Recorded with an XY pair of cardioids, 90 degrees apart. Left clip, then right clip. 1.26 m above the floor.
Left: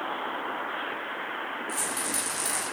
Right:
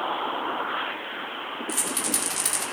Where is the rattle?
60° right, 3.5 m.